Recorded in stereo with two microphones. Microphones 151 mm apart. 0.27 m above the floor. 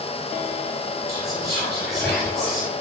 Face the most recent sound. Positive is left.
turn(degrees=20)  # may be behind; listen again after turning